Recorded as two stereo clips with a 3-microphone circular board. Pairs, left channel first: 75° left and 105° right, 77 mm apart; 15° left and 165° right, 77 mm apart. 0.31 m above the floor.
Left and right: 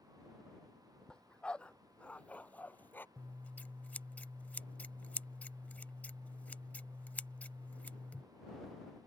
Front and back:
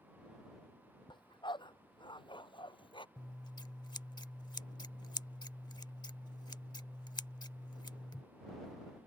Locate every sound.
1.1 s a dog barking: 5° right; by 3.1 s 10° left
3.2 s scissors: 5° left